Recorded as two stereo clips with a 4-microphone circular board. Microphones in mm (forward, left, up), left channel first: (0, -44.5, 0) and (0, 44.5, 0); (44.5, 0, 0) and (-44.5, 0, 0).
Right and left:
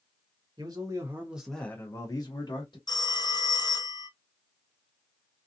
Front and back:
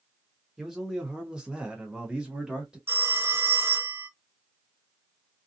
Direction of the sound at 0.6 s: 95° left.